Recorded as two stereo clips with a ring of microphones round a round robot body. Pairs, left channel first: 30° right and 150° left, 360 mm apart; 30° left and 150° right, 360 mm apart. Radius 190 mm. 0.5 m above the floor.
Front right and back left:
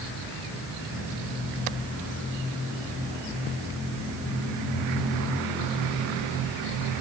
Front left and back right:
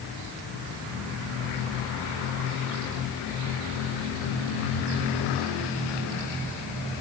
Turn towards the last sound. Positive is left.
No sound to turn to.